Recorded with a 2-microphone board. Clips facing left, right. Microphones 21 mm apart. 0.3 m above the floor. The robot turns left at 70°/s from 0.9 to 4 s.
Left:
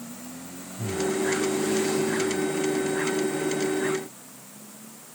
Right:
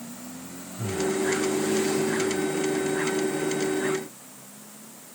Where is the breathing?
40° right (ahead or behind); by 1.2 s 25° right (ahead or behind).